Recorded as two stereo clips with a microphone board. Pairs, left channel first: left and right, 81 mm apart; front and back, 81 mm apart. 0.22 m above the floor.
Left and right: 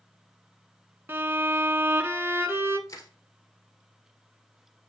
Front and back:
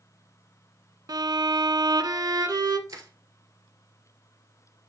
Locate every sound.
1.1 s a violin: 155° right, 0.6 m
2.9 s crushing: 135° left, 1.6 m